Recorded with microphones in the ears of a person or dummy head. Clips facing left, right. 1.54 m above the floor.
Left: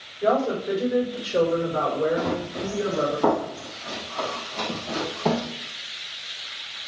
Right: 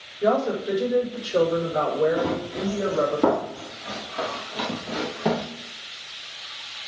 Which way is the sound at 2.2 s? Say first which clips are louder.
Right 1 dB; 50° right (ahead or behind).